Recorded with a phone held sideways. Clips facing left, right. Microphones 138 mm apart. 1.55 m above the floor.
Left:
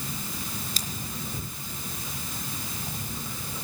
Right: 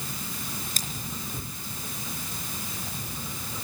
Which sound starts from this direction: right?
Scissors, at 0.8 s.